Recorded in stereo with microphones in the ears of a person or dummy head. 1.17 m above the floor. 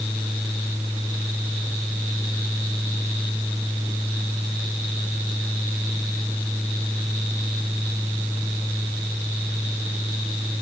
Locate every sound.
Only background noise.